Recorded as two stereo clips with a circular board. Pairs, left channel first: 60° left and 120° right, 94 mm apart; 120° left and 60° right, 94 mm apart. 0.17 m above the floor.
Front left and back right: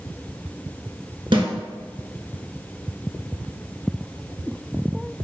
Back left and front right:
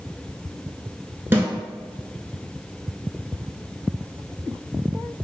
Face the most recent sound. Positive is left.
turn(degrees=-125)